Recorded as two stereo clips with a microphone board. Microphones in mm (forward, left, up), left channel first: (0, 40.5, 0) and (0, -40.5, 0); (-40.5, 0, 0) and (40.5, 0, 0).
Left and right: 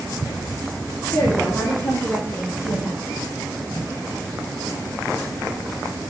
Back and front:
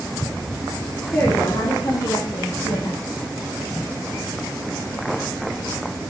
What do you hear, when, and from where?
1.1 s a woman speaking: 110° left, 1.6 m; by 3.0 s 155° left, 2.5 m